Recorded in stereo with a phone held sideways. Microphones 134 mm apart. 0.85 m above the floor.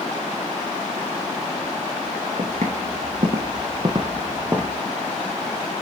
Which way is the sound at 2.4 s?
55° right (ahead or behind).